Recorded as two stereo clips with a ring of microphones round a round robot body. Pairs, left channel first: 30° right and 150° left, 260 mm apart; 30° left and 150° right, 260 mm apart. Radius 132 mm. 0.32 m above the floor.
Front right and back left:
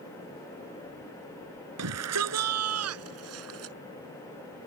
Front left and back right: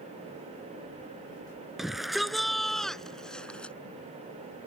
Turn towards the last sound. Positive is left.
turn(degrees=115)